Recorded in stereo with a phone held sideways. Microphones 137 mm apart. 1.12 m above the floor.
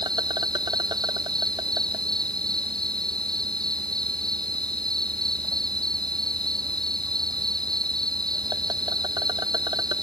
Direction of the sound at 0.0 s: 30° right (ahead or behind).